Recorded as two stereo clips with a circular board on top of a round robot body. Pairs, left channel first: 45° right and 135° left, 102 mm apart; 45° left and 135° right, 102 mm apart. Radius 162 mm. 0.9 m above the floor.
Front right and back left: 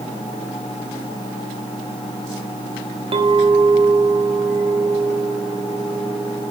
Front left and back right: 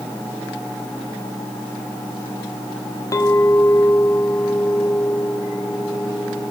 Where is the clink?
105° left, 0.9 m.